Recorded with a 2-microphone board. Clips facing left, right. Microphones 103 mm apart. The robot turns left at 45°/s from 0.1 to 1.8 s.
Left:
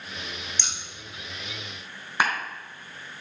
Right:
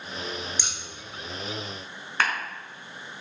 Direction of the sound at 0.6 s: 10° right (ahead or behind).